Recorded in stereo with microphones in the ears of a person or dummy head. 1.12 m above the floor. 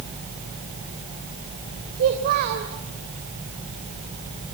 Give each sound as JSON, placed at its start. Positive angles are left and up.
{"t": 1.9, "sound": "a child speaking", "side_deg": -50, "distance_m": 3.0}